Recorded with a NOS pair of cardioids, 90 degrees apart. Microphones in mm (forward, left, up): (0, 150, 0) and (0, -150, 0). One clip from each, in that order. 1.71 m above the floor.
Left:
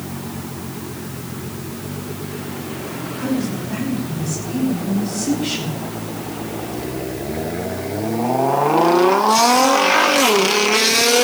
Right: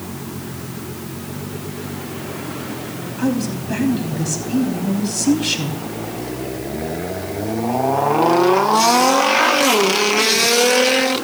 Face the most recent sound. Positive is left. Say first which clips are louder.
# right 2 dB
turn(degrees=-55)